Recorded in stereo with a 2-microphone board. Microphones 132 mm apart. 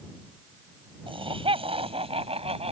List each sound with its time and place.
1.1 s laughter: 40° right (ahead or behind); by 2.7 s 50° right (ahead or behind)